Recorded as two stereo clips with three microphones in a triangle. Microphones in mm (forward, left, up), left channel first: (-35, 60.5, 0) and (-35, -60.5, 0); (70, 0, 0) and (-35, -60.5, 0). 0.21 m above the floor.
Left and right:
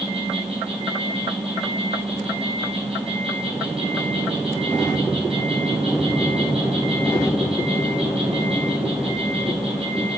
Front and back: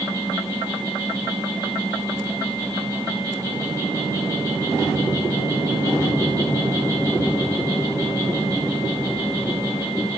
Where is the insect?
95° right, 4 m.